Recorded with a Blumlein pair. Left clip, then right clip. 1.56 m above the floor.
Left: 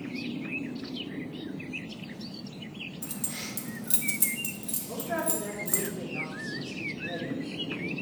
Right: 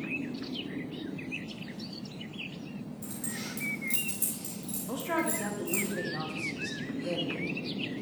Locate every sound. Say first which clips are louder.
3.0 s keys jangling: right 1 dB; 20° left, 1.7 m
4.9 s a man speaking: right 1 dB; 50° right, 2.5 m